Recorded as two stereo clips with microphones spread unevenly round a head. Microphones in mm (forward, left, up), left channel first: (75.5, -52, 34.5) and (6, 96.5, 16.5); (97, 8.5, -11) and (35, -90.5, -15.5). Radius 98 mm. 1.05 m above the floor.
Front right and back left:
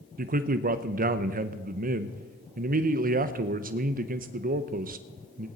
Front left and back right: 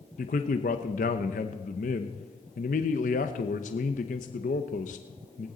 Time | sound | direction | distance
0.2 | a man speaking | 90° left | 0.7 m